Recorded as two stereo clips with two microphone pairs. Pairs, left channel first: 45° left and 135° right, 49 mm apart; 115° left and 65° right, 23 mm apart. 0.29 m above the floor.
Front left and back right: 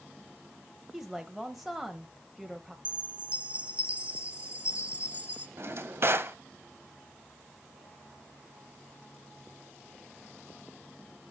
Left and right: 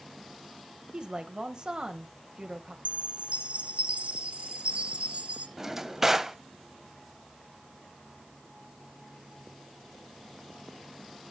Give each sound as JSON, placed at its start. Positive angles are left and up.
{"t": 0.9, "sound": "a woman speaking", "azimuth_deg": -50, "distance_m": 1.1}
{"t": 2.9, "sound": "a chime", "azimuth_deg": -70, "distance_m": 1.3}
{"t": 5.6, "sound": "a drawer", "azimuth_deg": -135, "distance_m": 0.7}